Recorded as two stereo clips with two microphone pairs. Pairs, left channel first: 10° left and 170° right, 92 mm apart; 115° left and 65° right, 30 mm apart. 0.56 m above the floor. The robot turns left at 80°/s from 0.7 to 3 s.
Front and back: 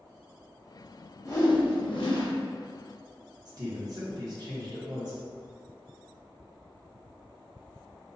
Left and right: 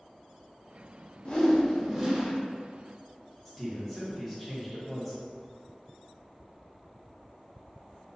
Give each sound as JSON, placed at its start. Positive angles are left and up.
{"t": 1.2, "sound": "a whoosh", "azimuth_deg": 65, "distance_m": 0.7}
{"t": 3.5, "sound": "a man speaking", "azimuth_deg": -170, "distance_m": 0.9}